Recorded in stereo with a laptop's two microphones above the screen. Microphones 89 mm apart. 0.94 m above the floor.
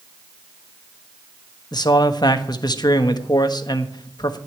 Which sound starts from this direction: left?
A man speaking, at 1.7 s.